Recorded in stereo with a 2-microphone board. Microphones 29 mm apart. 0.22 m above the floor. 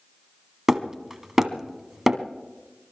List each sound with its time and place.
0.7 s hammering: 20° right (ahead or behind), 1.2 m